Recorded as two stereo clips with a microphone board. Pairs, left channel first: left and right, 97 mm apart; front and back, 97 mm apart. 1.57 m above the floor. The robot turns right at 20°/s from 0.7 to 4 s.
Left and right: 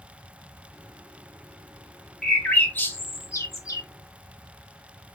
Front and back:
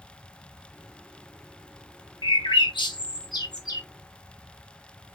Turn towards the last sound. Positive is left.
turn(degrees=45)